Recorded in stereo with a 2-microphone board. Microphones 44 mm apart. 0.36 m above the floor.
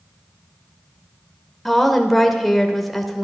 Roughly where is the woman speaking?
Centre.